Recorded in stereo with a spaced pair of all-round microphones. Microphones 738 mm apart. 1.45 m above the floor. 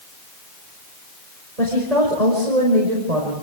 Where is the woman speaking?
55° right (ahead or behind), 5.5 m.